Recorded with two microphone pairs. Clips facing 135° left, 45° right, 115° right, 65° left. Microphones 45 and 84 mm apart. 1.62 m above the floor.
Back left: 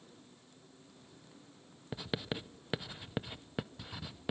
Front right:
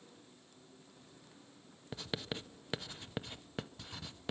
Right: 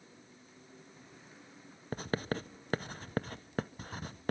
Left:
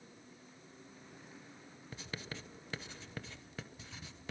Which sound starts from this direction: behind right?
Writing, at 1.9 s.